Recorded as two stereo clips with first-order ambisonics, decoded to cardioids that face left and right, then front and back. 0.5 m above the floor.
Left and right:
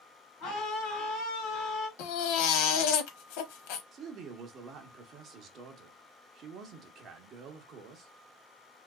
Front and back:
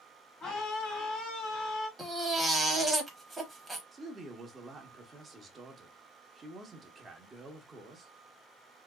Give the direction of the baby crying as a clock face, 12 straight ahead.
9 o'clock.